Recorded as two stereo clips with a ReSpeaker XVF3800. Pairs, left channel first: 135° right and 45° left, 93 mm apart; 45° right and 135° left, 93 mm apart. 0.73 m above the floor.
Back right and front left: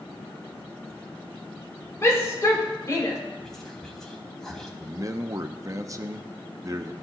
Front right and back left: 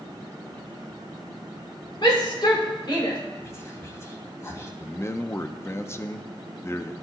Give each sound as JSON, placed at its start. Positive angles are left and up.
{"t": 2.0, "sound": "a shout", "azimuth_deg": -75, "distance_m": 2.0}
{"t": 3.4, "sound": "whispering", "azimuth_deg": -55, "distance_m": 1.2}
{"t": 4.8, "sound": "a man speaking", "azimuth_deg": 5, "distance_m": 0.6}